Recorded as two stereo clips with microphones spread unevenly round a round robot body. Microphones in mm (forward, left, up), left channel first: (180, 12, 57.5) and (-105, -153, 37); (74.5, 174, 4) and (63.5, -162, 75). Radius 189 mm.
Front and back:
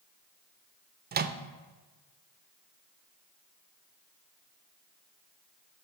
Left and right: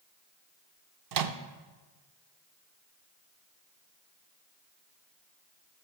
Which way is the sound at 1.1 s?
100° right.